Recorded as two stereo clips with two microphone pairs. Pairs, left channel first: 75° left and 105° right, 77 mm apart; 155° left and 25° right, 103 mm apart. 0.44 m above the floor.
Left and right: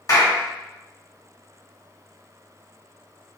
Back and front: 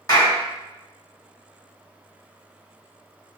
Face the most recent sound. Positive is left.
turn(degrees=110)